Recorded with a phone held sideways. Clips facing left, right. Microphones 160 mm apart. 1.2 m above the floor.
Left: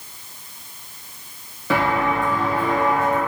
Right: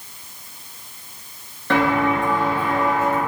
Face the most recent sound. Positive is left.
turn(degrees=-5)  # may be behind; listen again after turning